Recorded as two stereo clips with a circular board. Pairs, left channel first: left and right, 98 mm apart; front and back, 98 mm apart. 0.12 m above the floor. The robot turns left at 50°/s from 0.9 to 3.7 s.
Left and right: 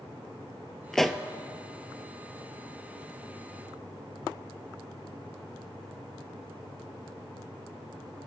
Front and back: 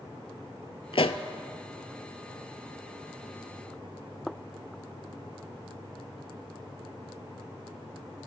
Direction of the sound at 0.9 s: 5° left.